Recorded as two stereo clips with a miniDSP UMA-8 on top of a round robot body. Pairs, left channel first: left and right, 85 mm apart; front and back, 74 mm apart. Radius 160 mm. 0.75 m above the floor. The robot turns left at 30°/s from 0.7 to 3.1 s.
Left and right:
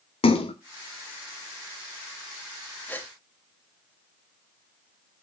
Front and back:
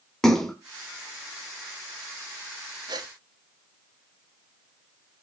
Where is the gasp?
160° left, 1.7 m; by 3.1 s 155° left, 1.7 m.